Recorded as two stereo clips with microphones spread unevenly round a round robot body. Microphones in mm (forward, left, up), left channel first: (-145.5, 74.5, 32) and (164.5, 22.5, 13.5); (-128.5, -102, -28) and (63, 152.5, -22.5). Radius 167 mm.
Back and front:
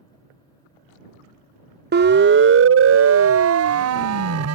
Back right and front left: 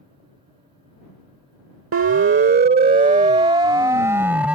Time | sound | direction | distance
1.9 | a siren | 25° left | ?